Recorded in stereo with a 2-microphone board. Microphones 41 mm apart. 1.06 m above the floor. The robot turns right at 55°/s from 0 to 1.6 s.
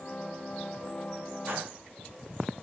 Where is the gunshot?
65° right (ahead or behind), 2.0 m; by 1.8 s 70° right (ahead or behind), 2.0 m.